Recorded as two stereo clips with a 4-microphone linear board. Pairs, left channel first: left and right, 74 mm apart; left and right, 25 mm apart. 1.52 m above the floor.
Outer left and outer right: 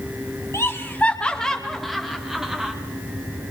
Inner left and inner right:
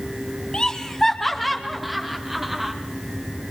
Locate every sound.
0.5 s laughter: 35° left (ahead or behind), 1.2 m; by 2.7 s 10° right (ahead or behind), 3 m